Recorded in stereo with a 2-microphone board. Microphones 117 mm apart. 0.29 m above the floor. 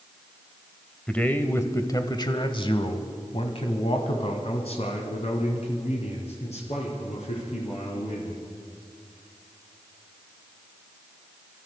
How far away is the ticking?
No ticking in this recording.